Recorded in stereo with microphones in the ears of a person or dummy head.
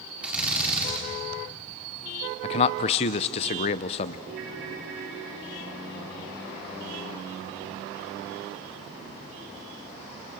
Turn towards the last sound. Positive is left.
turn(degrees=-55)  # may be behind; listen again after turning